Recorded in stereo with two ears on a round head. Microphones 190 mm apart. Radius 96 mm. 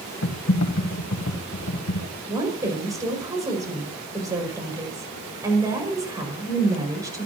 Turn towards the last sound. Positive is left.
turn(degrees=-15)  # may be behind; listen again after turning